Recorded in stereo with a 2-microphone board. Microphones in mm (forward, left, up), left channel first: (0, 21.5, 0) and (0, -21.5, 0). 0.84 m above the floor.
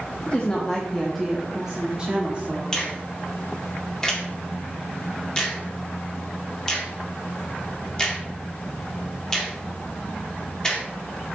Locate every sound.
0.3 s a woman speaking: 35° left (ahead or behind), 1.2 m; by 3.0 s 35° right (ahead or behind), 2 m
2.7 s a finger snap: 15° left (ahead or behind), 2 m